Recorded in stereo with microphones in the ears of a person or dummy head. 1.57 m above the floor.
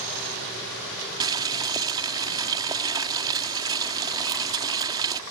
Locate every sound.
1.2 s boiling: 25° right (ahead or behind)